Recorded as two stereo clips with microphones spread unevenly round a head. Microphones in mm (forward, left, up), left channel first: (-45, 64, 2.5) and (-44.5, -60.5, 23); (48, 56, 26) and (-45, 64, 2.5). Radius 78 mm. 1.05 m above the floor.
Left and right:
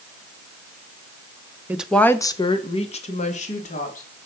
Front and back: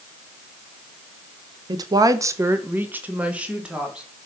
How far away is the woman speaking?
About 1.1 m.